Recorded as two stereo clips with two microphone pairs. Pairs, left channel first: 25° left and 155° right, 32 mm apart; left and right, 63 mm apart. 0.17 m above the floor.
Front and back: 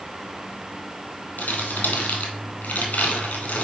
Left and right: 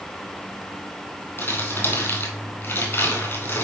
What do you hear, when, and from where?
1.4 s crumpling: 40° left, 2 m